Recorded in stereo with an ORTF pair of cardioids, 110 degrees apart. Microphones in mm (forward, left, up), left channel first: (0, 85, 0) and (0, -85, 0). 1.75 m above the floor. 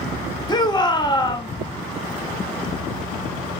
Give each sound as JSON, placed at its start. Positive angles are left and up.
{"t": 0.5, "sound": "a shout", "azimuth_deg": 25, "distance_m": 1.3}